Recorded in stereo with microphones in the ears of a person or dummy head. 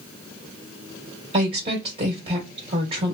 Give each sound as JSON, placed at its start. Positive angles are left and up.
{"t": 1.3, "sound": "a woman speaking", "side_deg": -35, "distance_m": 2.0}